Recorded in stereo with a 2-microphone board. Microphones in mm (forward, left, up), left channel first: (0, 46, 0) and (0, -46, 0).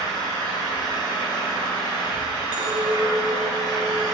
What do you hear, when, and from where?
0.0 s an engine running: 45° left (ahead or behind), 1.7 m
2.5 s a clink: 45° left (ahead or behind), 2.0 m